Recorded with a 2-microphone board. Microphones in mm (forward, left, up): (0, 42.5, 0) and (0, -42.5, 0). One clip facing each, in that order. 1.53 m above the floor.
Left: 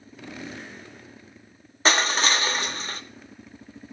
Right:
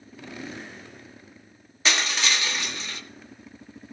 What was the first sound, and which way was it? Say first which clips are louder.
Crushing: left 4 dB; 40° left (ahead or behind).